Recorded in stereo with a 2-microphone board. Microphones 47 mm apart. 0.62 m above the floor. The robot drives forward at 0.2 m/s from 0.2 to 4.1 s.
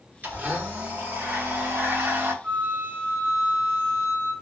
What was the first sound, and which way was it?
A blender, 40° right (ahead or behind).